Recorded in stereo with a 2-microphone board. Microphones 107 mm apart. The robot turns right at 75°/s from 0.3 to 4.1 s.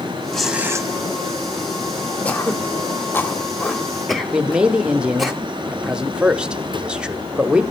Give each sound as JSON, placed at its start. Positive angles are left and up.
{"t": 0.3, "sound": "tearing paper", "azimuth_deg": 175, "distance_m": 1.4}
{"t": 2.2, "sound": "throat clearing", "side_deg": 15, "distance_m": 1.0}
{"t": 4.3, "sound": "a man speaking", "side_deg": -5, "distance_m": 0.8}